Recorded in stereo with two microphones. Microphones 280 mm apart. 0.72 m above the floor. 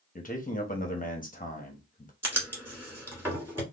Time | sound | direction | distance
0.1 | a man speaking | 30° left (ahead or behind) | 0.9 m
2.2 | writing | 10° right (ahead or behind) | 1.8 m